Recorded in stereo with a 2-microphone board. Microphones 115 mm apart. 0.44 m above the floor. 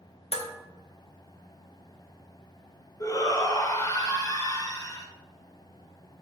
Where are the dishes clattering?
60° left (ahead or behind), 0.8 m.